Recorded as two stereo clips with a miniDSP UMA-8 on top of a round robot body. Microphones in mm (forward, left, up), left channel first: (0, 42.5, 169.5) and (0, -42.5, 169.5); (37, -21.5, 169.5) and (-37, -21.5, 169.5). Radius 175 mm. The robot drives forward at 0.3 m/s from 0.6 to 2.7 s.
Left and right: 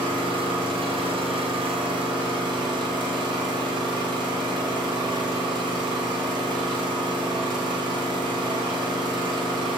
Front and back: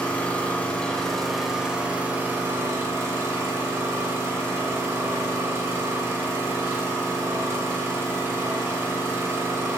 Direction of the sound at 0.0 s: 75° right.